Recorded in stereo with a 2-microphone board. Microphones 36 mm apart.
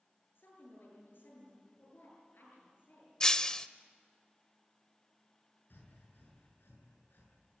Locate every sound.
0.3 s a woman speaking: 70° left (ahead or behind), 9 m
3.2 s breaking glass: 20° left (ahead or behind), 0.8 m
5.7 s breathing: 75° left (ahead or behind), 7 m